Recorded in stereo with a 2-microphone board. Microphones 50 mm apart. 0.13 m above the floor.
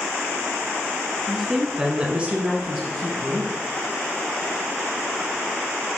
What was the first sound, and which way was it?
A woman speaking, 5° right (ahead or behind).